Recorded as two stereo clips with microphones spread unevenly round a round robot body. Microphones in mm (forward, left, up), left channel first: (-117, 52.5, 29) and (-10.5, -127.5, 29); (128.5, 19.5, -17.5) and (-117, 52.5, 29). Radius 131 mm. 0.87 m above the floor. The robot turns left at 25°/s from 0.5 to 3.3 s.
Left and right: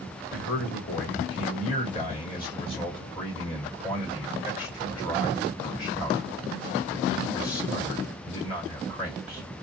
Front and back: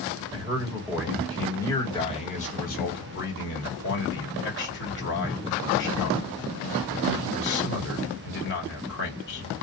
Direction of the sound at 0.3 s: 95° left.